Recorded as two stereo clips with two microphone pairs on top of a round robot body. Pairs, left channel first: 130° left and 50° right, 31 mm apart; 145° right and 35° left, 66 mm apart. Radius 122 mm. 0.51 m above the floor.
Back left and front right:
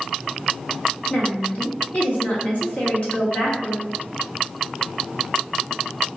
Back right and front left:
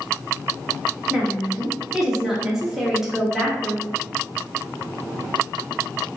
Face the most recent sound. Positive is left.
turn(degrees=100)